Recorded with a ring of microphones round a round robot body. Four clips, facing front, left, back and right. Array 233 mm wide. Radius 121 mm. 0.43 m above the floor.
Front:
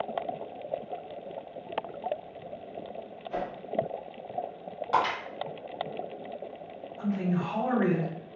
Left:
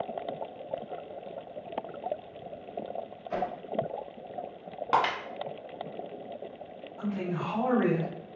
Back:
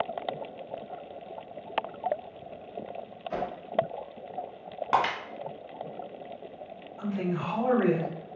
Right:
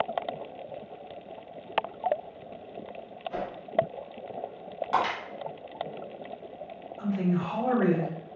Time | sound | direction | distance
3.3 | a whoosh | 135° left | 0.7 m
4.9 | breaking glass | 145° left | 1.0 m
7.0 | a man speaking | 130° left | 1.7 m